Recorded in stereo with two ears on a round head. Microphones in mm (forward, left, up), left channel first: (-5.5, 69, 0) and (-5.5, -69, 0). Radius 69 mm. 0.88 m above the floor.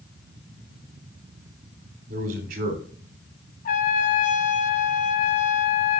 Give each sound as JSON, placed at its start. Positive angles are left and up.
{"t": 2.1, "sound": "a man speaking", "side_deg": -60, "distance_m": 3.5}
{"t": 3.6, "sound": "a trumpet", "side_deg": 55, "distance_m": 1.3}